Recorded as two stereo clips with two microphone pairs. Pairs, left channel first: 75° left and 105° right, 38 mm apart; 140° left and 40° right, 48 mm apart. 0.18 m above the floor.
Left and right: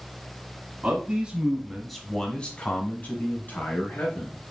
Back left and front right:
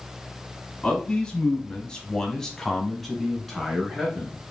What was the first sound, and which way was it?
A man speaking, 150° right.